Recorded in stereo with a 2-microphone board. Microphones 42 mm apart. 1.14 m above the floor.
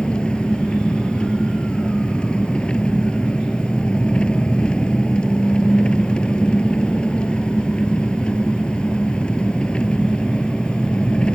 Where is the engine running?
25° left (ahead or behind).